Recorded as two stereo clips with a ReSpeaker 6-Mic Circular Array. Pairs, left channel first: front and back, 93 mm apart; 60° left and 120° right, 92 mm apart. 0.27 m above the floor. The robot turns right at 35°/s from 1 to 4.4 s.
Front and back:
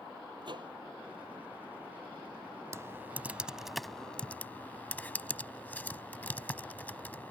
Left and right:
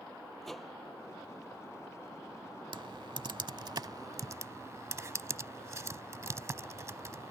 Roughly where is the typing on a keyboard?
Behind right.